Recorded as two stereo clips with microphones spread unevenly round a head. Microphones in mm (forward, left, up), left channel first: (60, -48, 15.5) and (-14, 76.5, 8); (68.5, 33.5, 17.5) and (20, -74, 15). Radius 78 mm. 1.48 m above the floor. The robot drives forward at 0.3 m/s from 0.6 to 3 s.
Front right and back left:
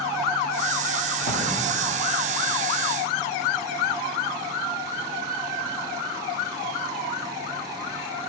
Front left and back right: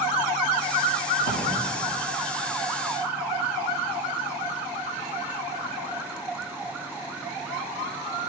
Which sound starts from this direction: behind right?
A drawer, at 1.2 s.